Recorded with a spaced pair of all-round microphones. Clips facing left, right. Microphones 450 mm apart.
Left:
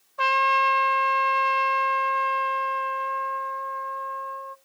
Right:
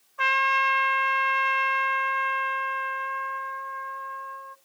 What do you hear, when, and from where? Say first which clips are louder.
0.2 s a trumpet: left 5 dB; 60° left (ahead or behind), 0.6 m